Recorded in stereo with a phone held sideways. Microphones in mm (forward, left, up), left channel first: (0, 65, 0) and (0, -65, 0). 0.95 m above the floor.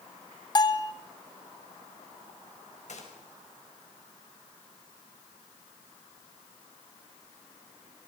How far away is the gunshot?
About 4.5 m.